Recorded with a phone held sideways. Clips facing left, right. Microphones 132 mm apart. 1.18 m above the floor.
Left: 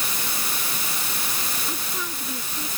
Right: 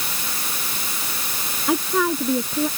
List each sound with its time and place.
1.7 s a woman speaking: 80° right